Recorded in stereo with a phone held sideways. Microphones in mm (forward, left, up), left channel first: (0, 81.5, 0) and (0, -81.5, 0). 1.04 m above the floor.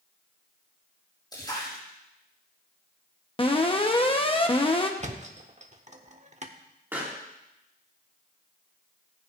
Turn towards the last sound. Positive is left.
turn(degrees=-10)  # may be behind; listen again after turning